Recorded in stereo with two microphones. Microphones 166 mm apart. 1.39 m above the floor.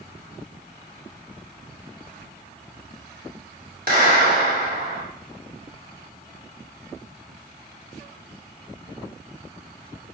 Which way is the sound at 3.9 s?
60° right (ahead or behind).